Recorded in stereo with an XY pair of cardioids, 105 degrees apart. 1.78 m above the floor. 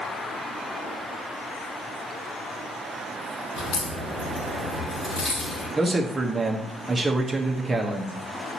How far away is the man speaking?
About 1.1 m.